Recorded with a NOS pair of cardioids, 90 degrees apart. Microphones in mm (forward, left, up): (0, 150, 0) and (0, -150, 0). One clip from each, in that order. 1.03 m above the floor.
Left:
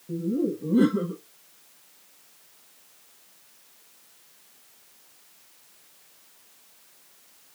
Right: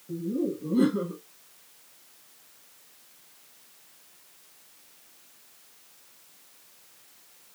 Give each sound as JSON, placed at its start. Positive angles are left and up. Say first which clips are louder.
{"t": 0.1, "sound": "laughter", "louder": "left 3 dB", "azimuth_deg": 25, "distance_m": 1.2}